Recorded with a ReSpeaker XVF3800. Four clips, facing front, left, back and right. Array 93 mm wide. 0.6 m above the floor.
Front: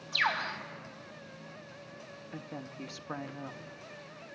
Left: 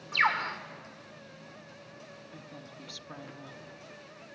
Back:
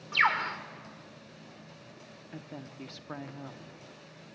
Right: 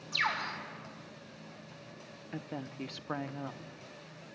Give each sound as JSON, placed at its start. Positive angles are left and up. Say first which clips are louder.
{"t": 0.1, "sound": "a bird", "louder": "left 6 dB, back 4 dB", "azimuth_deg": 140, "distance_m": 1.8}
{"t": 2.3, "sound": "a woman speaking", "louder": "right 11 dB, front 1 dB", "azimuth_deg": -80, "distance_m": 0.7}